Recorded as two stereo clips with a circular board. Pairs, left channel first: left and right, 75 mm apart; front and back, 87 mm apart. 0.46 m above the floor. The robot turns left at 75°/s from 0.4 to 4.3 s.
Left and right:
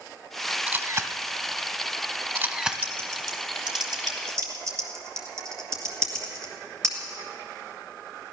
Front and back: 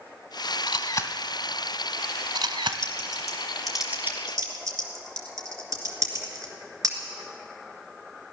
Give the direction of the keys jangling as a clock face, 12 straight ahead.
I don't hear keys jangling.